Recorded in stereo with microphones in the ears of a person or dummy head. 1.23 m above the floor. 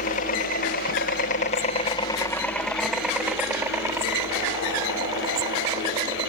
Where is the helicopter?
50° left (ahead or behind); by 6.3 s 25° right (ahead or behind).